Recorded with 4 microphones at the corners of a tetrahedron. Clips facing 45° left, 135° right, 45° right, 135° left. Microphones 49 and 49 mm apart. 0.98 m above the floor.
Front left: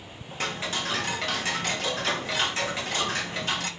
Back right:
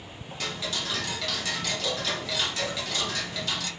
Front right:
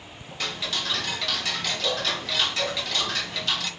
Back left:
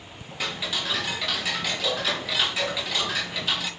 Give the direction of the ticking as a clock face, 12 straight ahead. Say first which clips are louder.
Front left 3 dB, back left 1 dB; 10 o'clock.